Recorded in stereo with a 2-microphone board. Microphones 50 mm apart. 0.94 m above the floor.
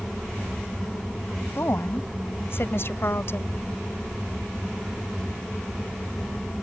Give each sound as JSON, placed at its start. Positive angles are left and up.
{"t": 1.6, "sound": "a woman speaking", "side_deg": 50}